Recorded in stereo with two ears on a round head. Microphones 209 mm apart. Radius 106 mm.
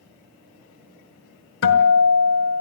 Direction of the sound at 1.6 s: 60° left (ahead or behind).